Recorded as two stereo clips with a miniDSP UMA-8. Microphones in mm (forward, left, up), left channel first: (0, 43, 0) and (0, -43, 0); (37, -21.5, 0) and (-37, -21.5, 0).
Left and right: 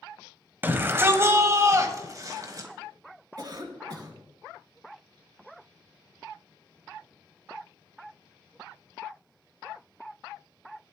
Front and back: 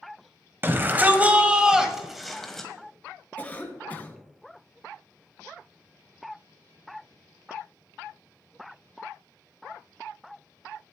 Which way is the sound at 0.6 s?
140° right.